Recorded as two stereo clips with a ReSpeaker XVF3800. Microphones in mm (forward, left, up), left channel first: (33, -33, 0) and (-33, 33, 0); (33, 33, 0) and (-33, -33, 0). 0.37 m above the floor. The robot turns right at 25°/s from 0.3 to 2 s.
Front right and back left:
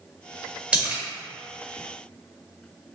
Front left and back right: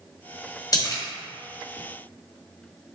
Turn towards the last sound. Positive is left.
turn(degrees=95)